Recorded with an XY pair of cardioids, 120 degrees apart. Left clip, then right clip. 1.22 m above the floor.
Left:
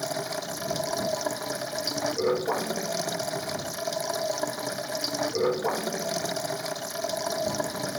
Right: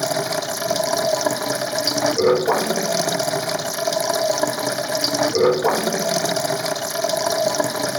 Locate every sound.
0.0 s running water: 50° right